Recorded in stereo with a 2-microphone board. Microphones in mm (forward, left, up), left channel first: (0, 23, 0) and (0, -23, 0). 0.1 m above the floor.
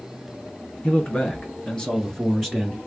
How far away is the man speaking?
About 1.3 m.